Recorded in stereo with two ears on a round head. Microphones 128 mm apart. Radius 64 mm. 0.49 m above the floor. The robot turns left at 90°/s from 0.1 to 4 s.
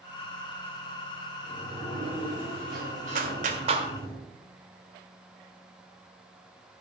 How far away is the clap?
About 1.7 m.